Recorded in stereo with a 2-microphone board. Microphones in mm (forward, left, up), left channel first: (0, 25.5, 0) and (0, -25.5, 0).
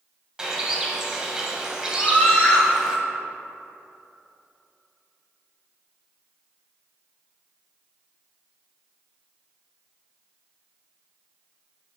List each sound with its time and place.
0.4 s a bird: 10° right (ahead or behind), 0.9 m
2.0 s a scream: 30° left (ahead or behind), 1.2 m